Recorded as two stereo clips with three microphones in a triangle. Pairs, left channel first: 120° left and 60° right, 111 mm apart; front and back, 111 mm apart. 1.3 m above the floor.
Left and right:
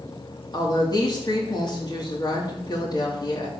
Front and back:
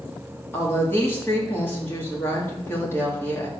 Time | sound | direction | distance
0.5 | a woman speaking | 70° left | 3 m